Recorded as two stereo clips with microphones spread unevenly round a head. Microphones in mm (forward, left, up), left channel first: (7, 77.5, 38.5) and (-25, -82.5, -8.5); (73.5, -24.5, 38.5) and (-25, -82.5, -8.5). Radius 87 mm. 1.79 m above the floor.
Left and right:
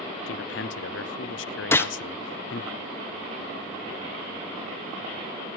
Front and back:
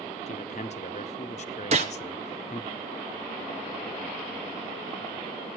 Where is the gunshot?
150° left, 0.9 m.